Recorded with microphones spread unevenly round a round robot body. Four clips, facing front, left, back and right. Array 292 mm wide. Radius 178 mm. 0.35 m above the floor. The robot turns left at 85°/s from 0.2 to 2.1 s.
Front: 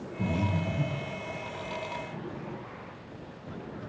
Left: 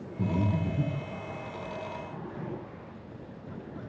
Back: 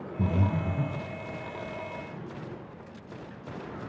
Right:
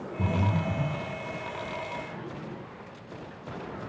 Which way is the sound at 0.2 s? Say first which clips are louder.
Even, back 1 dB; 175° left.